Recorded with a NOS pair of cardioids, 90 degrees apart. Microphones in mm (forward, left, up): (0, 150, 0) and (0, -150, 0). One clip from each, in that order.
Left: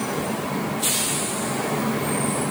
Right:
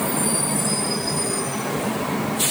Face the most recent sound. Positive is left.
No sound to turn to.